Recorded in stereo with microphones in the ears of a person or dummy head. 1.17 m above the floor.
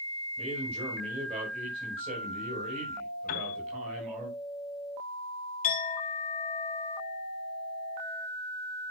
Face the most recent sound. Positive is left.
turn(degrees=45)  # may be behind; listen again after turning